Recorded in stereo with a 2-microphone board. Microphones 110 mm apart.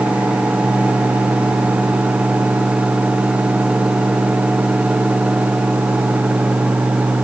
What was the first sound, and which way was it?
Only background noise.